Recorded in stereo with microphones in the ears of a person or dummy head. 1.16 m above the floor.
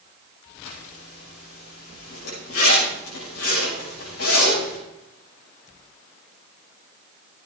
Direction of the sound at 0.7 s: 85° left.